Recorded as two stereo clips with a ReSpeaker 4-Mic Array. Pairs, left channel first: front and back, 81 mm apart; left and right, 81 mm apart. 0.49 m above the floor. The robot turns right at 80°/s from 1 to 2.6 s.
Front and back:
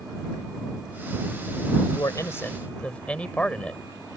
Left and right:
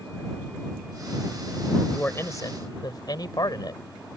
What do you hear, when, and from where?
1.9 s a man speaking: 15° left; by 3.8 s 70° left